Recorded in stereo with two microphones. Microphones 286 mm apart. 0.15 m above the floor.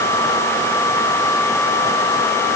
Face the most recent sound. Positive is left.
No sound to turn to.